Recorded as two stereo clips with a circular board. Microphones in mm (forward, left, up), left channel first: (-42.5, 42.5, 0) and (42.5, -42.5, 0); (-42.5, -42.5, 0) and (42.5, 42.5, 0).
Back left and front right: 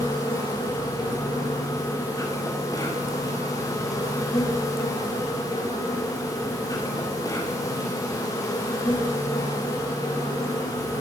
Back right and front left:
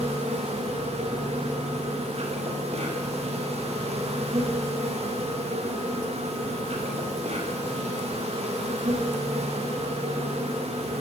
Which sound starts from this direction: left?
An insect, at 0.0 s.